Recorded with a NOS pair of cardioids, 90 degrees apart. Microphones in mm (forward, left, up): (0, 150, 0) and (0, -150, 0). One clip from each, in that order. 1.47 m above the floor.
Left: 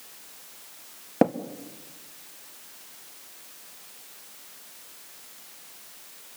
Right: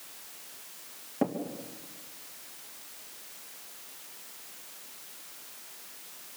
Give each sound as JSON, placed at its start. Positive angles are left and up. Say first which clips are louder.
{"t": 1.2, "sound": "tapping", "louder": "left 9 dB", "azimuth_deg": 65, "distance_m": 1.9}